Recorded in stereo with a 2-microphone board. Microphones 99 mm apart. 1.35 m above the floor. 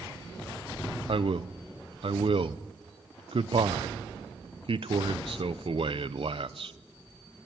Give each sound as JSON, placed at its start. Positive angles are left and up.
{"t": 1.1, "sound": "a man speaking", "side_deg": -60, "distance_m": 0.8}